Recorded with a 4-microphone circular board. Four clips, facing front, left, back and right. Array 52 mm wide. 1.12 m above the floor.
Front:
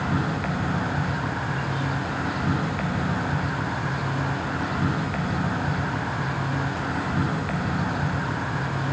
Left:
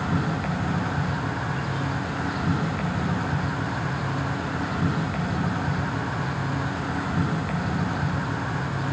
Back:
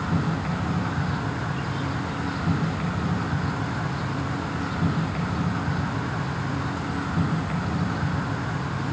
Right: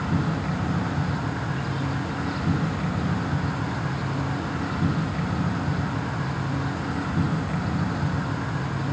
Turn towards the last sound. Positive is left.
turn(degrees=30)